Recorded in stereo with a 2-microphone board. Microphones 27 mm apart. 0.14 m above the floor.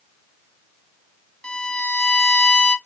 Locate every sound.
1.4 s a violin: 35° left (ahead or behind), 0.8 m